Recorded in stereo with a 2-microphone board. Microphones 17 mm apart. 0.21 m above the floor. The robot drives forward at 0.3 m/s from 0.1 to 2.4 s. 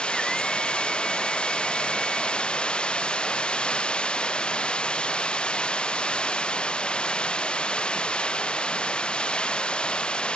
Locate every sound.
0.0 s running water: 60° left (ahead or behind)